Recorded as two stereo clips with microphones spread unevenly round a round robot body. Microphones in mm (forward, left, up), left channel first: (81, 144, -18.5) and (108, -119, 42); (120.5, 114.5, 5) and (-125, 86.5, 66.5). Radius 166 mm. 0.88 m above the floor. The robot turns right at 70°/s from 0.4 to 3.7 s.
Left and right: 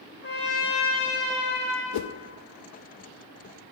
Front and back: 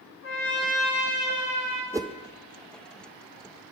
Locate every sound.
0.2 s a trumpet: 45° left, 4 m; by 1.8 s 145° left, 4 m
1.9 s a whoosh: 100° left, 0.5 m; by 2.1 s 115° left, 0.5 m